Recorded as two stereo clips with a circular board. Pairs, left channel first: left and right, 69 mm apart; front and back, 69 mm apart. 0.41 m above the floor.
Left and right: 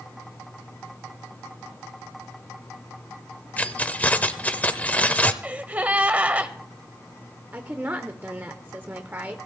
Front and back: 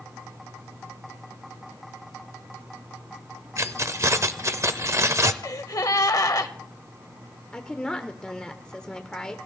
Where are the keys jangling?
155° left, 0.7 m.